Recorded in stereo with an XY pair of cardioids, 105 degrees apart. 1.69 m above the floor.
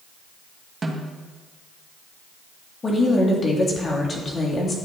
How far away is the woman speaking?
About 3.5 m.